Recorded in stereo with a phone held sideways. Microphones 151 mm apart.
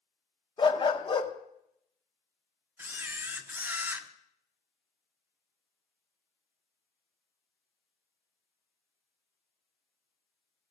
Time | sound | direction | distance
0.6 | a dog barking | 35° left (ahead or behind) | 0.7 m
2.8 | a camera shutter | 10° right (ahead or behind) | 0.6 m